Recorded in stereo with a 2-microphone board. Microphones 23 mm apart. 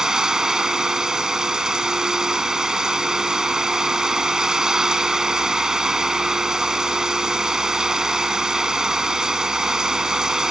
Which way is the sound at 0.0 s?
25° right (ahead or behind).